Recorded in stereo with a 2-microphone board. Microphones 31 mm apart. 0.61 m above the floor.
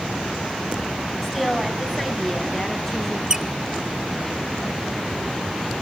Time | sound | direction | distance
1.2 | a woman speaking | centre (ahead or behind) | 6 m
3.3 | a squeak | 20° right (ahead or behind) | 1.2 m